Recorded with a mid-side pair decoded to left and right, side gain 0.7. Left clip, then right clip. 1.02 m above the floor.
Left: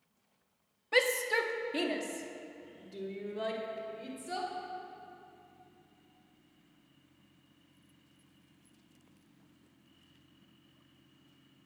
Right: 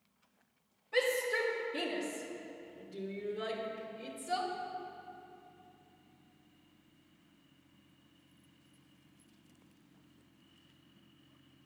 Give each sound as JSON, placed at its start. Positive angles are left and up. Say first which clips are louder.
{"t": 0.9, "sound": "a shout", "louder": "left 3 dB", "azimuth_deg": 55, "distance_m": 1.7}